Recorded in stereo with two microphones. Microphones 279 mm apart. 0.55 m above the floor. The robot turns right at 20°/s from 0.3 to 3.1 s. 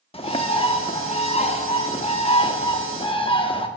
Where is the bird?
20° left (ahead or behind), 0.7 m.